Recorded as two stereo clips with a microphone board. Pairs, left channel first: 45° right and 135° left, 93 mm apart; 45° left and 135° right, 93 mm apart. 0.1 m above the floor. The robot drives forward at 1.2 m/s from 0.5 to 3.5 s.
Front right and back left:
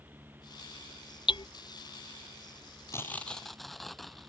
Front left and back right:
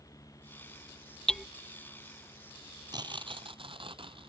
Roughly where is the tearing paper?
Right.